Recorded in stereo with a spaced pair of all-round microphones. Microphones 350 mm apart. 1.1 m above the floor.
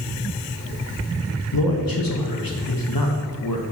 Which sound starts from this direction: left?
A man speaking, at 1.5 s.